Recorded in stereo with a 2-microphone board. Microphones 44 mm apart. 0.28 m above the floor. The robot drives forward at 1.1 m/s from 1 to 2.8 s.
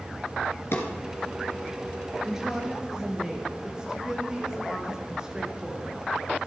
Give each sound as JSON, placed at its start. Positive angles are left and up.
{"t": 0.7, "sound": "a drawer", "side_deg": 70, "distance_m": 2.5}
{"t": 2.2, "sound": "a woman speaking", "side_deg": -15, "distance_m": 4.0}